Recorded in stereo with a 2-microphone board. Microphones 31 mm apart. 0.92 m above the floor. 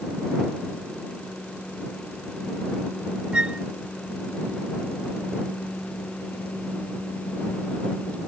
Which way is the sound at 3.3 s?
35° right (ahead or behind).